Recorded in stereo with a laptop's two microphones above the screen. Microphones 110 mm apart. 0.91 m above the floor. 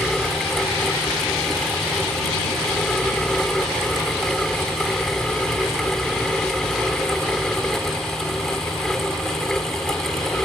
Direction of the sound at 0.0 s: 5° left (ahead or behind).